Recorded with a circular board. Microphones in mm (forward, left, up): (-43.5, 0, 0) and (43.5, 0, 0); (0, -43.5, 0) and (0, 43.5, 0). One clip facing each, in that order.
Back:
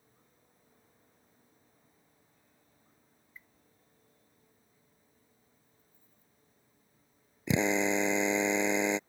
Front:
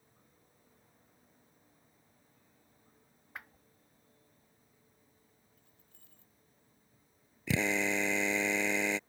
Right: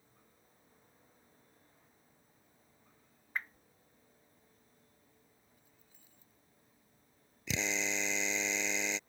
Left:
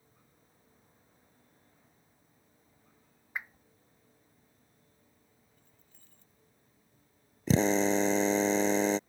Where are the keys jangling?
10° right.